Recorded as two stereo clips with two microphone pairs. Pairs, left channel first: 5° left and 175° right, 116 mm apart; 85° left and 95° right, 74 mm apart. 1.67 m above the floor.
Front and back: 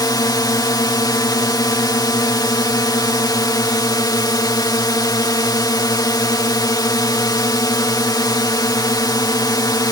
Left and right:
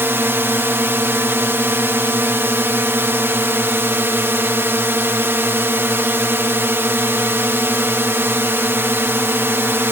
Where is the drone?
40° right.